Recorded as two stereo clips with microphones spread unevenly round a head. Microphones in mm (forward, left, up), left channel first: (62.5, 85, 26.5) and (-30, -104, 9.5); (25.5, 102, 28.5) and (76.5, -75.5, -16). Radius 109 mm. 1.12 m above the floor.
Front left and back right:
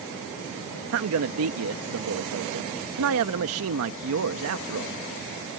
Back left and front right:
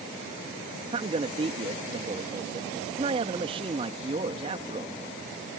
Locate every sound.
0.9 s a man speaking: 140° right